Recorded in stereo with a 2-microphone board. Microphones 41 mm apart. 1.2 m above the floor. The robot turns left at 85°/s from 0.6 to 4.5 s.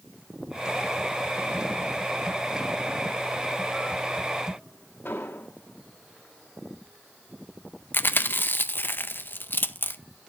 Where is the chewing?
60° left (ahead or behind), 0.6 m.